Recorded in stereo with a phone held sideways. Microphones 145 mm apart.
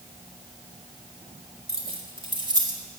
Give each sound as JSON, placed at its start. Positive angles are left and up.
{"t": 1.7, "sound": "keys jangling", "side_deg": -50, "distance_m": 2.5}